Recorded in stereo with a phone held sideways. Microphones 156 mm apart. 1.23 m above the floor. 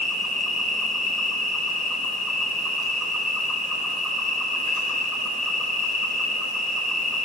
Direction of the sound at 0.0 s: Centre (ahead or behind).